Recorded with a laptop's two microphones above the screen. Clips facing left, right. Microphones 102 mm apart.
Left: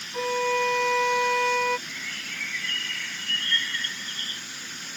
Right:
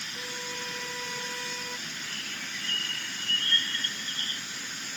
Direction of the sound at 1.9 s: 35° right (ahead or behind).